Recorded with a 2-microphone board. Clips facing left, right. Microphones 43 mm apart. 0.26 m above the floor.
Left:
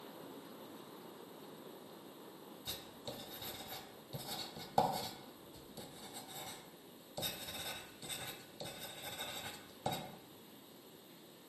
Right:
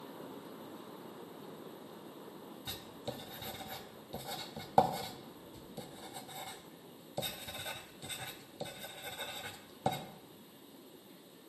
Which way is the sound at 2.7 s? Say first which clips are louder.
Right 4 dB; 25° right (ahead or behind).